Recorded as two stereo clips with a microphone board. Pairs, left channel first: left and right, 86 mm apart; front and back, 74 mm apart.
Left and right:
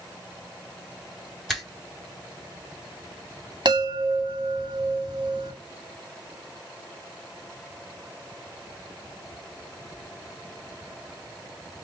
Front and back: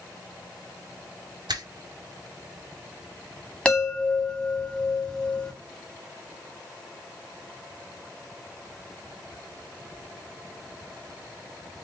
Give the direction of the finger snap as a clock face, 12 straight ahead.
6 o'clock.